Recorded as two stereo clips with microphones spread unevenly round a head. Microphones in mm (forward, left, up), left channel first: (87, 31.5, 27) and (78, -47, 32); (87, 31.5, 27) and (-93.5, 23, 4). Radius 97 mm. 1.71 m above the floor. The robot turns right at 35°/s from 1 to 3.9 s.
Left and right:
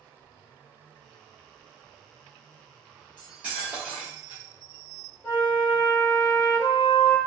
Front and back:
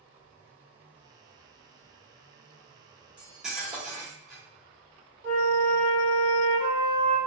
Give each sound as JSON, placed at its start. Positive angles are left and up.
{"t": 3.2, "sound": "cutlery clinking", "azimuth_deg": -85, "distance_m": 0.9}
{"t": 5.2, "sound": "a flute", "azimuth_deg": 170, "distance_m": 1.0}